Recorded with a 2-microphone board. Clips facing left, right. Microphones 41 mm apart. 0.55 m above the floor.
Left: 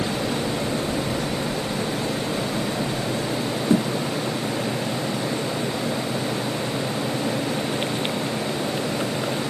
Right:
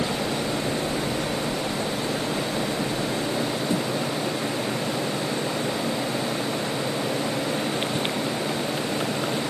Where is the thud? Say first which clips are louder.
Left 9 dB; 55° left (ahead or behind), 1.6 m.